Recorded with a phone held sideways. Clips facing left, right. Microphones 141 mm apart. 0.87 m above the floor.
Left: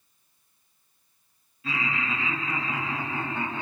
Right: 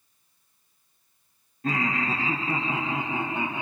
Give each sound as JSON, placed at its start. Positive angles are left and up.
{"t": 1.6, "sound": "laughter", "side_deg": -45, "distance_m": 1.0}